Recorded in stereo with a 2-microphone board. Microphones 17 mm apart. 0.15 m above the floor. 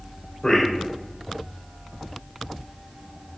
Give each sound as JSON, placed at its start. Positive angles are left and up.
{"t": 0.4, "sound": "a man speaking", "side_deg": 30, "distance_m": 1.6}